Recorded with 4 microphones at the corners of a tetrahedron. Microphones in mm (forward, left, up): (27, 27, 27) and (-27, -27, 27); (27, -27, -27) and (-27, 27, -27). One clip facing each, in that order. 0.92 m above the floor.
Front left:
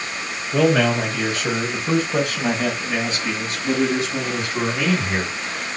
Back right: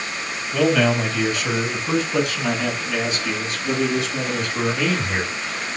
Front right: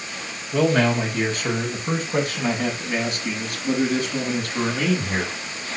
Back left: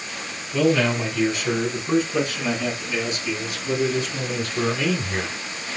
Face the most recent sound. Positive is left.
turn(degrees=-10)